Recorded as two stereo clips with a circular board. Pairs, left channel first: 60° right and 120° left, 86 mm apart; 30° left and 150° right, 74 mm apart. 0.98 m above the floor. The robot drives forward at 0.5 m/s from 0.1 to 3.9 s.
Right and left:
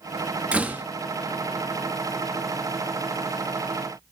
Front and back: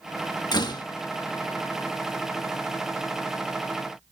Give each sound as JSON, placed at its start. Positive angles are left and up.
{"t": 0.5, "sound": "a door slam", "azimuth_deg": 45, "distance_m": 1.1}